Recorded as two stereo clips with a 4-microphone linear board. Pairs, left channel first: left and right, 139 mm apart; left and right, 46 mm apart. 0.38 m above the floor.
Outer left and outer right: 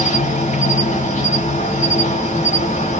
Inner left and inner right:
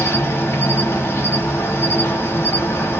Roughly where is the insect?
Left.